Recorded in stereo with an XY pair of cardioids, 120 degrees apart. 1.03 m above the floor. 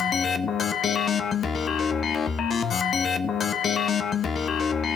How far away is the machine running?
About 1.1 m.